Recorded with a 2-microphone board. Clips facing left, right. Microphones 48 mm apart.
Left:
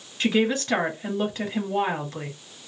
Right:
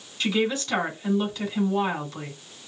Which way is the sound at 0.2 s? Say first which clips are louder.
Left 2 dB; 40° left (ahead or behind).